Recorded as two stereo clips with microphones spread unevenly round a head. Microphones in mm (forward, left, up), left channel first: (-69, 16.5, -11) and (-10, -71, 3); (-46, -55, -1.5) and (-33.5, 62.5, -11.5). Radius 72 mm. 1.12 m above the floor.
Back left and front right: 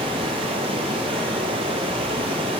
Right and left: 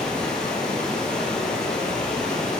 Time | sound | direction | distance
0.0 | running water | 15° right | 2.5 m